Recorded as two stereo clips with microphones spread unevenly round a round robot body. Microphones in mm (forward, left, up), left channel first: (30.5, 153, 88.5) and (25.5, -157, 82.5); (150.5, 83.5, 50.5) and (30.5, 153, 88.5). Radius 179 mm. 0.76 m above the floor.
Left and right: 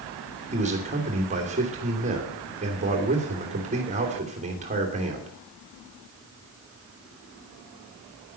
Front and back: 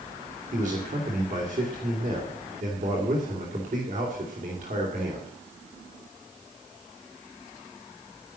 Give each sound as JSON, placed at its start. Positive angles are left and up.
{"t": 0.5, "sound": "a man speaking", "azimuth_deg": -160, "distance_m": 2.5}